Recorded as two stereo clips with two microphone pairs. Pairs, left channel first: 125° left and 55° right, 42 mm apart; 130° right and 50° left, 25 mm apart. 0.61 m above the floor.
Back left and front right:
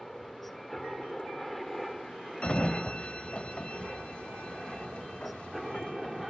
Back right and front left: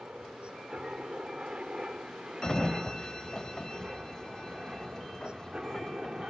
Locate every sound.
0.0 s a helicopter: 40° left; by 6.3 s 25° left
2.4 s a sliding door: 175° left